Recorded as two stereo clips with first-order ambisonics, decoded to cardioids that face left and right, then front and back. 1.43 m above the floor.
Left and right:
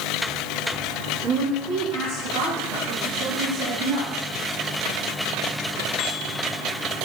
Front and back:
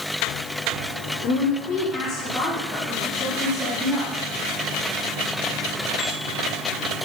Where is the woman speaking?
55° right, 4 m; by 4.1 s 110° right, 3.5 m.